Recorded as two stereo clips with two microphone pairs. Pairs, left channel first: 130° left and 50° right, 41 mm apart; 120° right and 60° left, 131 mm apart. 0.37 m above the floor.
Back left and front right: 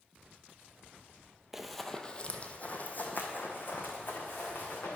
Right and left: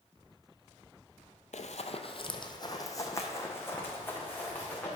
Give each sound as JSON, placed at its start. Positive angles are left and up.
{"t": 1.5, "sound": "running footsteps", "azimuth_deg": -130, "distance_m": 0.7}